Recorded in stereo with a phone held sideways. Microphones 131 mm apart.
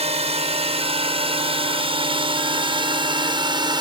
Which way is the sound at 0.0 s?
55° right (ahead or behind).